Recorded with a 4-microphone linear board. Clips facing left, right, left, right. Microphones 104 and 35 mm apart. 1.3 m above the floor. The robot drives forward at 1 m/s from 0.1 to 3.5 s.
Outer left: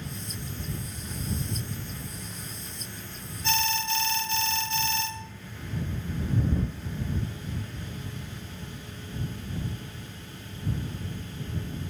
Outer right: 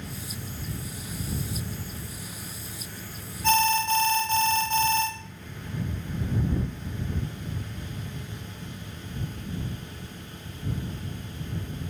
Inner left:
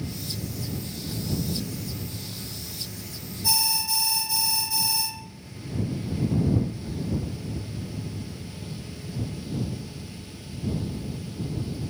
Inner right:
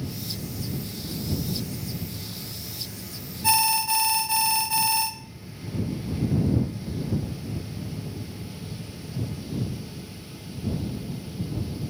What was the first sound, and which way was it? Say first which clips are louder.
An alarm: outer right 7 dB, inner right 5 dB; 45° right (ahead or behind).